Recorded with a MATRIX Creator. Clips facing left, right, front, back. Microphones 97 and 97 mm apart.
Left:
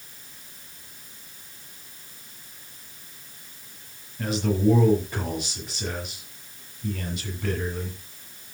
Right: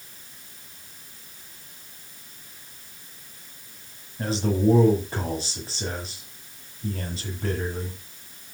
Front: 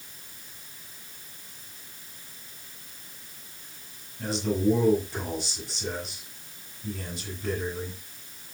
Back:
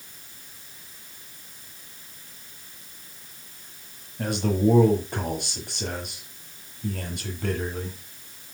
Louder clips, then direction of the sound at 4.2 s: Even, back 3 dB; 150° right.